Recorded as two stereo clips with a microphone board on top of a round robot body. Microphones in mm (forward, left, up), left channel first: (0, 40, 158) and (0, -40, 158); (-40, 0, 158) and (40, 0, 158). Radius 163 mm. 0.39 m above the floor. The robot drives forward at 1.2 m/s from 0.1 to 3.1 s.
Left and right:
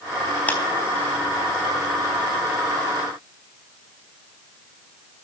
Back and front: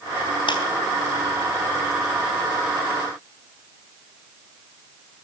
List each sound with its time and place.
0.5 s a clap: 160° left, 3.5 m